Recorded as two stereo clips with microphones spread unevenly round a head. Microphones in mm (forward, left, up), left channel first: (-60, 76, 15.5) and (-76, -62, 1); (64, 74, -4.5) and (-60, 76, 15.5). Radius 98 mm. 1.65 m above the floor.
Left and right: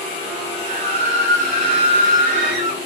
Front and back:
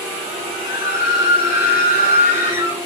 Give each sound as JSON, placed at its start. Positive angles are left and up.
{"t": 0.6, "sound": "a scream", "azimuth_deg": -35, "distance_m": 2.5}